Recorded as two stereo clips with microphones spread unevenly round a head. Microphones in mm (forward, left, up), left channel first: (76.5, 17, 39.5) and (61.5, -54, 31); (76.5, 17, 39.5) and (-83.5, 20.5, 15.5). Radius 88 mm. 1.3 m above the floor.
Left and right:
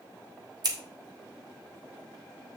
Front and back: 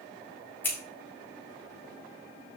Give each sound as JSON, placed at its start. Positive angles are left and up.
{"t": 0.6, "sound": "scissors", "azimuth_deg": -80, "distance_m": 1.7}